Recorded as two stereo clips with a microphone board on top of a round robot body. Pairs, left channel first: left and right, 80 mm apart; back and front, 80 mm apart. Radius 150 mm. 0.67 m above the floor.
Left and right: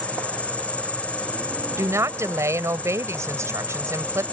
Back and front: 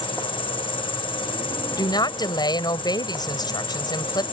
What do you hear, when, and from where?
0.0 s an insect: 165° left
1.8 s a woman speaking: 145° right